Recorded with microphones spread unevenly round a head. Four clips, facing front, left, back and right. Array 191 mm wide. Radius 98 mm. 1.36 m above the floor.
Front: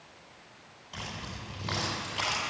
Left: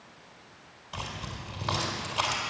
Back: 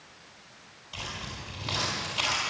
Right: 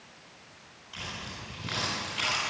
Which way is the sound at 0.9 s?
95° left.